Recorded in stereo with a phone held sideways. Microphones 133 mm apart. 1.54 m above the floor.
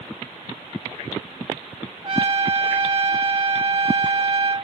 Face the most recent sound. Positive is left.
turn(degrees=-40)  # may be behind; listen again after turning